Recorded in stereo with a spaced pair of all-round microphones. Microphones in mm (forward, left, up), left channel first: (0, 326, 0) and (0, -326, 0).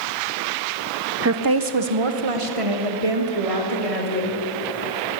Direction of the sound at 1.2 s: 20° right (ahead or behind).